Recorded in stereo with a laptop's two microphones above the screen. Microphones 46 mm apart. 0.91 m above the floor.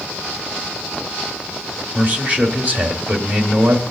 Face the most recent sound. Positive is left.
turn(degrees=-35)  # may be behind; listen again after turning